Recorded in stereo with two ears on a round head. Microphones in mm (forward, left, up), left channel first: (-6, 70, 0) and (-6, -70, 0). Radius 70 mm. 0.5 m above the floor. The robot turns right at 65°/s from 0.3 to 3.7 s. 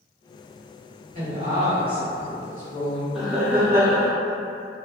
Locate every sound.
1.1 s a woman speaking: 60° right, 1.4 m; by 3.0 s 60° left, 1.4 m
3.1 s laughter: centre (ahead or behind), 0.8 m; by 4.1 s 15° right (ahead or behind), 0.8 m